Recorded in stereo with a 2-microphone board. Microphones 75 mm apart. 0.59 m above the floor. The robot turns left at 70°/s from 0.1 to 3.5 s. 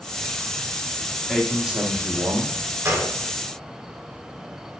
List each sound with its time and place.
1.3 s a man speaking: 10° left, 1.1 m; by 2.8 s 90° right, 1.1 m
2.9 s a gunshot: 35° right (ahead or behind), 2 m; by 3.1 s 50° right (ahead or behind), 2 m